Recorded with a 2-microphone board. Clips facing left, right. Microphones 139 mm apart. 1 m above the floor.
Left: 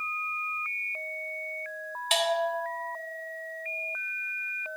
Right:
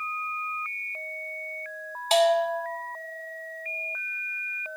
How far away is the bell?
About 1.5 m.